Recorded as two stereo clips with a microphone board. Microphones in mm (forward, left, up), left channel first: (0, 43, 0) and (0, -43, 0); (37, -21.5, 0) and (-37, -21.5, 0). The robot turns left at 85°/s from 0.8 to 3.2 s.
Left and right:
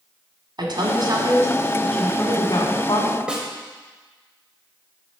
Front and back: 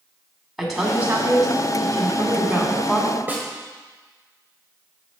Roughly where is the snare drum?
Behind right.